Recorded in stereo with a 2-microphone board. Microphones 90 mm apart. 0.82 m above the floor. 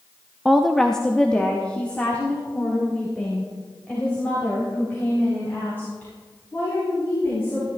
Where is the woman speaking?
5° right (ahead or behind), 0.5 m; by 7.7 s 20° left (ahead or behind), 6.5 m.